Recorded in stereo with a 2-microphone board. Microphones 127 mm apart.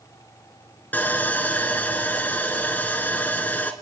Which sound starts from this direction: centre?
Sawing, at 0.9 s.